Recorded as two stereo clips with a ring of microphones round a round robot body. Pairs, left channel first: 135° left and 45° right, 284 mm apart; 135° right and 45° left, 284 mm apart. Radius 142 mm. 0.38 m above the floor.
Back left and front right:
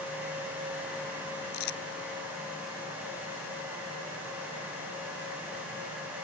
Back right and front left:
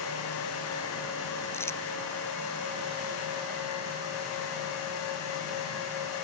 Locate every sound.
1.5 s crumpling: 145° left